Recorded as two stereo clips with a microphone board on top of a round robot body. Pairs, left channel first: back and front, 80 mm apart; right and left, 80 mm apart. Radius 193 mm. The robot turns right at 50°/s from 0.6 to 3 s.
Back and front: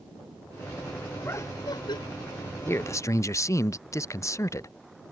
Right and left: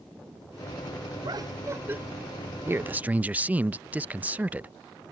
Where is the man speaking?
135° left; by 4.7 s 155° left.